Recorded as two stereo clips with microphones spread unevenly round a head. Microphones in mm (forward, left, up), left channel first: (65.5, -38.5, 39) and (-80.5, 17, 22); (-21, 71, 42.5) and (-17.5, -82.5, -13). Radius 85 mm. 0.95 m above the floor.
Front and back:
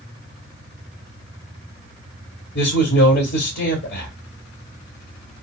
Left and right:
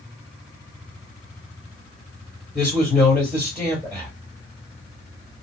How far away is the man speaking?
About 2.5 m.